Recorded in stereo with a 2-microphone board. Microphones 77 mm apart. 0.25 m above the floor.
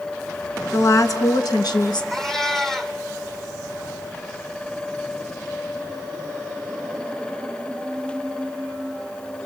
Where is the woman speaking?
40° left (ahead or behind), 2 m; by 2.0 s 70° left (ahead or behind), 3 m.